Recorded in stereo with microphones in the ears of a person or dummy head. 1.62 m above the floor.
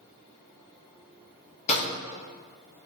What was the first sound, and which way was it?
A snare drum, 35° left (ahead or behind).